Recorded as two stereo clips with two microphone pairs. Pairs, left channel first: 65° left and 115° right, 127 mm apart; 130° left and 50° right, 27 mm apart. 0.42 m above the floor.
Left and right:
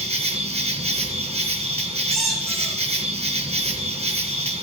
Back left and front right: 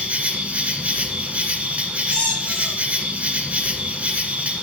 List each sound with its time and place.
0.0 s an insect: 85° right, 1.4 m
2.1 s a squeak: 150° left, 5 m